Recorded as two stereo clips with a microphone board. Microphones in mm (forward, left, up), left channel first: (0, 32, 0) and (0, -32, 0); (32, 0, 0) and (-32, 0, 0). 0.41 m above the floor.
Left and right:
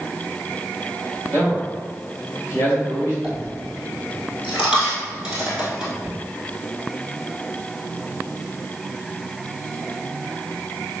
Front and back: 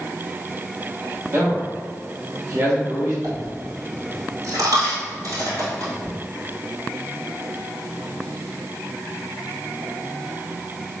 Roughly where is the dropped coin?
Behind.